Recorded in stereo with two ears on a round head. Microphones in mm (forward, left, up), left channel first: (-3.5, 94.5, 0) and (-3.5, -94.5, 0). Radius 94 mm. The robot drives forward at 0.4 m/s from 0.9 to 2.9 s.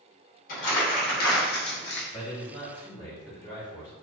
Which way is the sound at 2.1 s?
25° left (ahead or behind).